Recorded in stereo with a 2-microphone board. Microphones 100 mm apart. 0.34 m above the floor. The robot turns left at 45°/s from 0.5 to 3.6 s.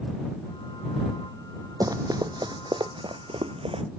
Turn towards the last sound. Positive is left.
turn(degrees=-70)  # may be behind; listen again after turning